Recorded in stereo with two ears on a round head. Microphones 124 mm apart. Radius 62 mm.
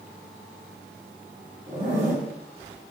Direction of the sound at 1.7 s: 20° right (ahead or behind).